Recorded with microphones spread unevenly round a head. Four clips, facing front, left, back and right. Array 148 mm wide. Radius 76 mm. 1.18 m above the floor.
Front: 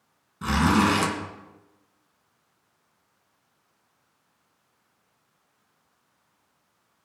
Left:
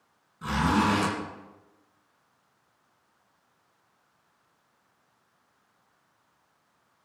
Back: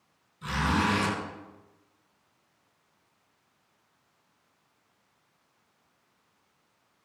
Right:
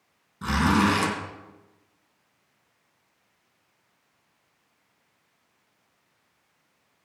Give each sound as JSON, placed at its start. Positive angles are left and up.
{"t": 0.4, "sound": "a zipper", "azimuth_deg": -25, "distance_m": 3.5}